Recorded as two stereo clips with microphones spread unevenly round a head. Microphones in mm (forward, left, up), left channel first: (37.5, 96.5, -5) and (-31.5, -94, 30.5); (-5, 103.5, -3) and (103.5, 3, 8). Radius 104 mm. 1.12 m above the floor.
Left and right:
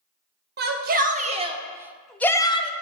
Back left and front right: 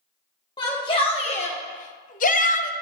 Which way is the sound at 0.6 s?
155° right.